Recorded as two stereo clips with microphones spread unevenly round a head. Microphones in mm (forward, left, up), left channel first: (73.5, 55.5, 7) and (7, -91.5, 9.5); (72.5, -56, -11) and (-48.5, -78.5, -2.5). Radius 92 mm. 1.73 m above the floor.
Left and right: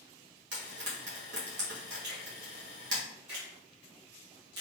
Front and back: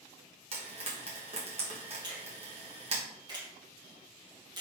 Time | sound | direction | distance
0.5 | frying | 140° right | 1.7 m
2.0 | a finger snap | 115° right | 1.7 m